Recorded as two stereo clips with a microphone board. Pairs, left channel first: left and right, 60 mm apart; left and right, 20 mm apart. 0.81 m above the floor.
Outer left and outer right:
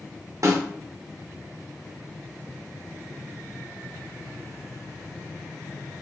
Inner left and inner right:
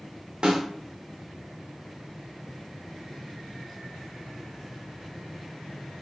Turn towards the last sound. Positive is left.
turn(degrees=-55)  # may be behind; listen again after turning